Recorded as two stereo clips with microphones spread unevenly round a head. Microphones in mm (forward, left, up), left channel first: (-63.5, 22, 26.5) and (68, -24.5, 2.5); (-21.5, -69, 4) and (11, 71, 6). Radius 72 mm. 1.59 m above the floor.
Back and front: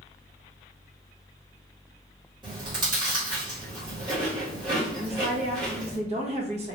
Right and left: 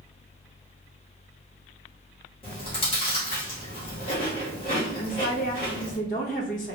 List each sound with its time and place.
2.4 s chewing: 80° right, 1.6 m
5.0 s a woman speaking: 70° right, 1.1 m